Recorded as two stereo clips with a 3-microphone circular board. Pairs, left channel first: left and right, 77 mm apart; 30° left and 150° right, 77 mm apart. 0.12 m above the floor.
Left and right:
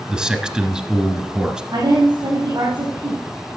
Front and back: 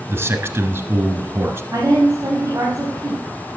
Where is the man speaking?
160° right, 1.5 m.